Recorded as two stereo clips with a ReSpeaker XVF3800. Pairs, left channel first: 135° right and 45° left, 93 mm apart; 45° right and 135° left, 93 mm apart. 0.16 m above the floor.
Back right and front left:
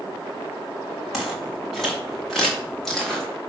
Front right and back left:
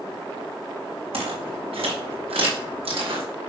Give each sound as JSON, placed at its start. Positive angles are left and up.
{"t": 1.1, "sound": "footsteps", "azimuth_deg": 135, "distance_m": 5.5}